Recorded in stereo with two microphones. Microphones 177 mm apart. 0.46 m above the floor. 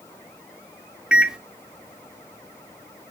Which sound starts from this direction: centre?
A microwave, at 1.1 s.